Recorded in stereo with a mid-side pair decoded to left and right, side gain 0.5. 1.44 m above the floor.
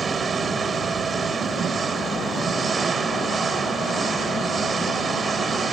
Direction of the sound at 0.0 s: 40° right.